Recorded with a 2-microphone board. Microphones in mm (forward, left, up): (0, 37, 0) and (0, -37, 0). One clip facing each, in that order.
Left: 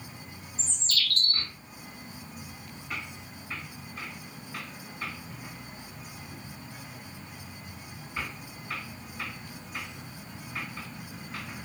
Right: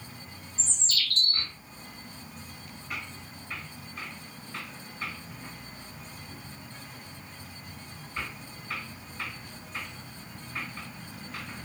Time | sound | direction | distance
0.6 | a bird | 25° right (ahead or behind) | 1.5 m